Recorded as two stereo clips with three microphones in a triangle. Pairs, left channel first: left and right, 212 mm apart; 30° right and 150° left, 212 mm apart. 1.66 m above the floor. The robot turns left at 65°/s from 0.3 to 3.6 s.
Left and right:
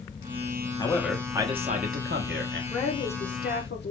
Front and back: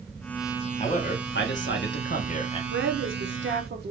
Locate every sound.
0.8 s a man speaking: 20° left, 1.2 m; by 2.6 s 95° right, 1.2 m
2.7 s a woman speaking: 175° left, 1.2 m; by 3.9 s 115° left, 1.2 m